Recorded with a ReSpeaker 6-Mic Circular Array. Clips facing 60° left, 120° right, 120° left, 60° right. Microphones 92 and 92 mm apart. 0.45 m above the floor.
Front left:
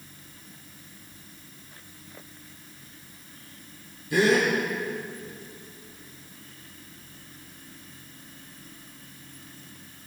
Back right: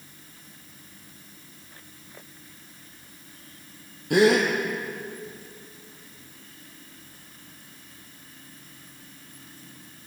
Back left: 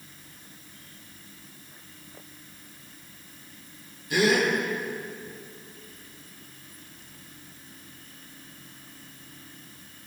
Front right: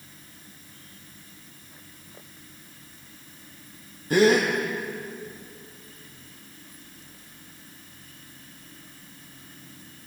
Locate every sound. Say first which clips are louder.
4.1 s a gasp: back right 3 dB, front right 4 dB; 105° right, 4.5 m